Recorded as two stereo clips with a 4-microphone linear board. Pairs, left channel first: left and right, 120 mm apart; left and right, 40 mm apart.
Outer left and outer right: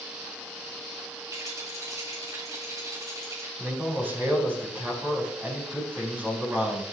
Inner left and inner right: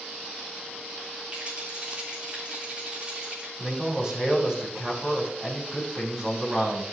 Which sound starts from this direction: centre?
A man speaking, at 3.6 s.